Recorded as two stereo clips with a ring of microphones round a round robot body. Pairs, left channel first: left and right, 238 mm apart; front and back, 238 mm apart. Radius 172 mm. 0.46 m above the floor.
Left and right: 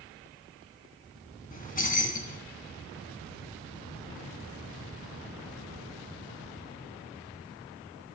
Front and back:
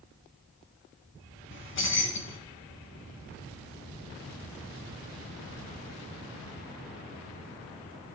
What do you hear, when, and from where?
1.5 s keys jangling: 35° left, 3.5 m